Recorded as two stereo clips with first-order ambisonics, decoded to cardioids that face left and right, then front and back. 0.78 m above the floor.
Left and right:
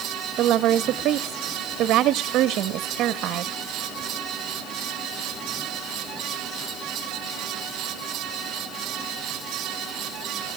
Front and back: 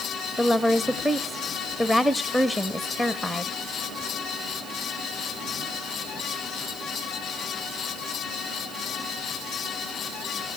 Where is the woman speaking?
90° right, 0.7 m.